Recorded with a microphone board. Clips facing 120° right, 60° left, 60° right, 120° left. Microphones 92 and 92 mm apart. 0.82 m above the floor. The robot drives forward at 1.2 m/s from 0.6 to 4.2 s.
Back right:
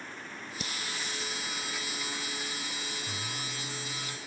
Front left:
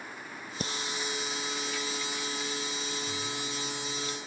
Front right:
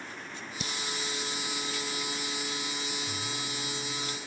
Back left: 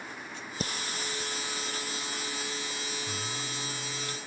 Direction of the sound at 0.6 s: 90° left.